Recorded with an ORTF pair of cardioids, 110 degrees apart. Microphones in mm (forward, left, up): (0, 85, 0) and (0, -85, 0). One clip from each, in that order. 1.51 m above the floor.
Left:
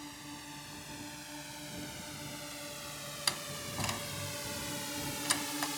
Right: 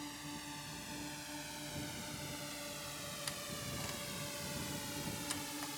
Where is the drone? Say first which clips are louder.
Even; straight ahead; by 5.8 s 45° left.